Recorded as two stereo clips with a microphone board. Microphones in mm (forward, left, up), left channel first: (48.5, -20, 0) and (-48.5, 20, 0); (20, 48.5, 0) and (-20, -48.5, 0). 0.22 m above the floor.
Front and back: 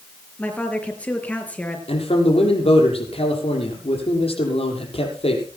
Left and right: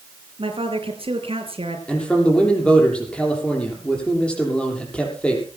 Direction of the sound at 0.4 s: 100° right.